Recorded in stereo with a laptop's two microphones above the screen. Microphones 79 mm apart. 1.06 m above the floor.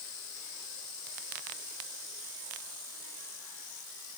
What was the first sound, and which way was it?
Only background noise.